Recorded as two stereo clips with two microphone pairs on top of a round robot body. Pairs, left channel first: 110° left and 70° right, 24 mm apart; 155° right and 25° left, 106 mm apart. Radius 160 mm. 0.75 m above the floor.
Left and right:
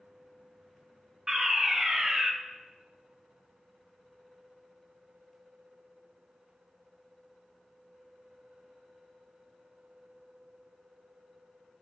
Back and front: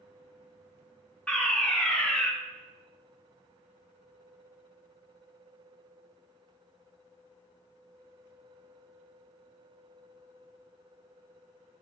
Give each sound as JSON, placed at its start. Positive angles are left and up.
{"t": 1.3, "sound": "a fire alarm", "azimuth_deg": -80, "distance_m": 1.7}